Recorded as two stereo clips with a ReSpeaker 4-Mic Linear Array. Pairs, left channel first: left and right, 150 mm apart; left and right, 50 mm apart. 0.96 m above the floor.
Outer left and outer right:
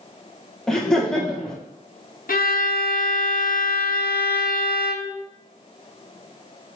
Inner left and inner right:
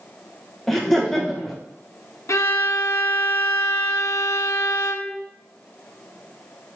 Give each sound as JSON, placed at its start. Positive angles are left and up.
{"t": 0.7, "sound": "laughter", "side_deg": 5, "distance_m": 0.9}
{"t": 2.3, "sound": "a violin", "side_deg": 75, "distance_m": 0.6}